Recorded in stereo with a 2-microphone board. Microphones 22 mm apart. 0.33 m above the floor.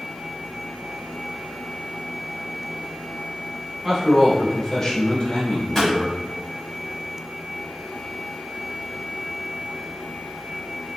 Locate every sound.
3.8 s a man speaking: 5° right (ahead or behind), 1.0 m; by 6.2 s 55° left (ahead or behind), 1.6 m
5.7 s a pop: 20° left (ahead or behind), 1.3 m